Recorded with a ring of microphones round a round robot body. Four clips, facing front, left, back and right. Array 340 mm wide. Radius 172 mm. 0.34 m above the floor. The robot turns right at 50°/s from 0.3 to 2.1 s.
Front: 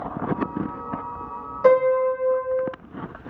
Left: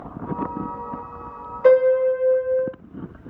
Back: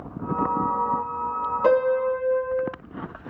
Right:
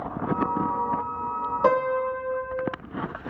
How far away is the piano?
About 1.8 m.